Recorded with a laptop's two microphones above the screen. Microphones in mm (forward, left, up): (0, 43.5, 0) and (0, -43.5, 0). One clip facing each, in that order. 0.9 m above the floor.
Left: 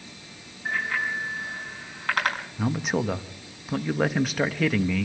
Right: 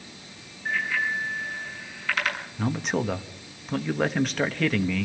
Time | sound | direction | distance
0.7 | a bicycle bell | 55° left (ahead or behind) | 6 m
2.6 | a man speaking | 5° left (ahead or behind) | 1.1 m